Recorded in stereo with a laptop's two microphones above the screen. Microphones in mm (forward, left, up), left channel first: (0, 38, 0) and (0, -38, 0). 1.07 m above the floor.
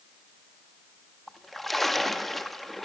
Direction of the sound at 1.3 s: 5° left (ahead or behind).